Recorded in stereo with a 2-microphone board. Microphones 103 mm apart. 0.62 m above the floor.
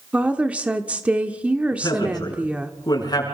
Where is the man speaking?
40° left (ahead or behind), 8 m.